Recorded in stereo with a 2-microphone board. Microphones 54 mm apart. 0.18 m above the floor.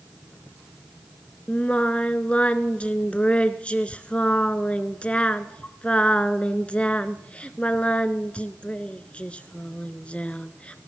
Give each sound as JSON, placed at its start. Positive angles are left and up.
{"t": 1.5, "sound": "singing", "side_deg": 25, "distance_m": 0.7}